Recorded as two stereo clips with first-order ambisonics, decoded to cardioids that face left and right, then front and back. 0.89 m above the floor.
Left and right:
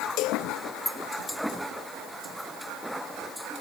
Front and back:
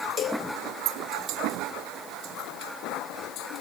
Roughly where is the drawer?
No drawer in this recording.